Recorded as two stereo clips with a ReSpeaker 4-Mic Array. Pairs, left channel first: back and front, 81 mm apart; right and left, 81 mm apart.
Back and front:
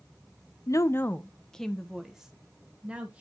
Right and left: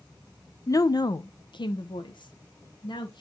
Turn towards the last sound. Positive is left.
turn(degrees=-75)